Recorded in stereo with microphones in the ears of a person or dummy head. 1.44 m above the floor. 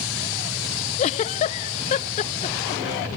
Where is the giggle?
35° left (ahead or behind), 0.5 m.